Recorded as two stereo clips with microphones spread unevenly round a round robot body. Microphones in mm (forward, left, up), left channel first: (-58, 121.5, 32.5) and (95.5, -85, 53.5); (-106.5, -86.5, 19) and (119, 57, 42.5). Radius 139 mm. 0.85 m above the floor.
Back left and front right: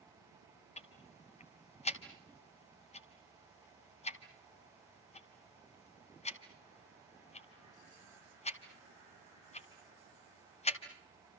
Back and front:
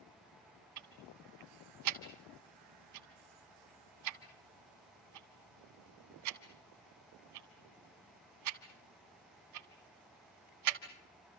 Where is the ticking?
60° left, 1.5 m.